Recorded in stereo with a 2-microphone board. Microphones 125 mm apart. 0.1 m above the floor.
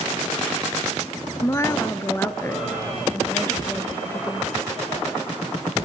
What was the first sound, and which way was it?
A woman speaking, 25° left (ahead or behind).